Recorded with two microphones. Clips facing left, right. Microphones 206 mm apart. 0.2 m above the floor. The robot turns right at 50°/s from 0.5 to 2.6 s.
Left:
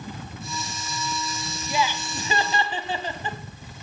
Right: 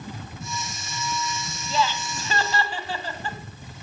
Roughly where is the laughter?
Centre.